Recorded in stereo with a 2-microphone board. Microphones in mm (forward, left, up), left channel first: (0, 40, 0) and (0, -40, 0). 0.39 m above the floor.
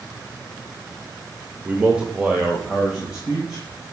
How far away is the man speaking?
About 0.9 m.